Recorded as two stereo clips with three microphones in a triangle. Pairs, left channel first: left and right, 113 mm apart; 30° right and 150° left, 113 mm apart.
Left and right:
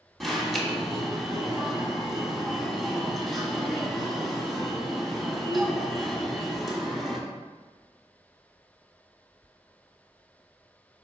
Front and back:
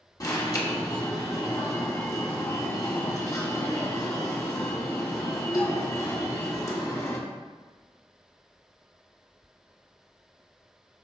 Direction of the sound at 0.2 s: Straight ahead.